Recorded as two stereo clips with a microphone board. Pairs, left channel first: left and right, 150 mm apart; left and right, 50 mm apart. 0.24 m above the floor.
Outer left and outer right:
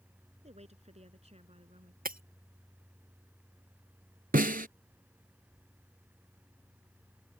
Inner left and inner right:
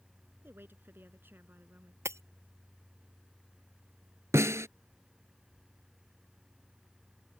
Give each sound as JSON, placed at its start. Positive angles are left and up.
{"t": 0.4, "sound": "a woman speaking", "side_deg": -50}
{"t": 2.0, "sound": "breaking glass", "side_deg": -80}
{"t": 4.3, "sound": "a snare drum", "side_deg": -80}